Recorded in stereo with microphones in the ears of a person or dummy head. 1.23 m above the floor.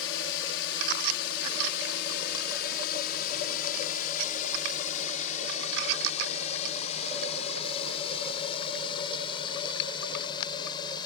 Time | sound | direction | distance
0.0 | a drone | 70° left (ahead or behind) | ?